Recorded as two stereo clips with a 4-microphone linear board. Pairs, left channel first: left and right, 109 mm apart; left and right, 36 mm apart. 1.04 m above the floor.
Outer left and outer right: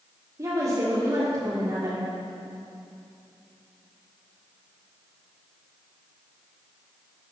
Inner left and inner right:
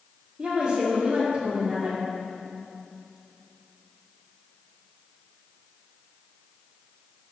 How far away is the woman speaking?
About 2 m.